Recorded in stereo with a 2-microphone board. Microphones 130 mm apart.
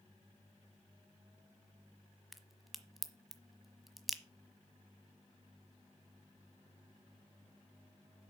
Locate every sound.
2.3 s a crack: centre (ahead or behind), 1.1 m